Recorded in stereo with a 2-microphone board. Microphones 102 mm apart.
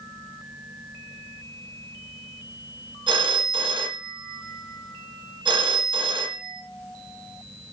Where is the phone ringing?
55° right (ahead or behind), 1.0 m.